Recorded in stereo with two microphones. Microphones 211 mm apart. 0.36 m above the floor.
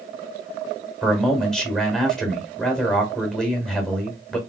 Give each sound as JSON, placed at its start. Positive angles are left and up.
{"t": 1.0, "sound": "a man speaking", "side_deg": 5, "distance_m": 1.4}